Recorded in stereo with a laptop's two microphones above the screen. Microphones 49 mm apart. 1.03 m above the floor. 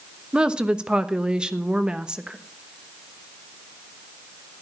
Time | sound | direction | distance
0.3 | a woman speaking | 20° right (ahead or behind) | 1.1 m